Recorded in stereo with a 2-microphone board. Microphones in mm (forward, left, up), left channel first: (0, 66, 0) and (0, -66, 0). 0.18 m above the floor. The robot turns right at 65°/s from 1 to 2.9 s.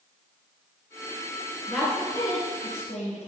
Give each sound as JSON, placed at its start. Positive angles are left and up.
{"t": 1.7, "sound": "a woman speaking", "side_deg": 10, "distance_m": 2.0}